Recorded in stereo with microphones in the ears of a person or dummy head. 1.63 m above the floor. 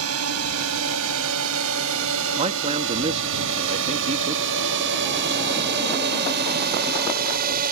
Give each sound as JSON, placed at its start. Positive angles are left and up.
{"t": 0.0, "sound": "a drone", "side_deg": -85}
{"t": 2.4, "sound": "a man speaking", "side_deg": -35}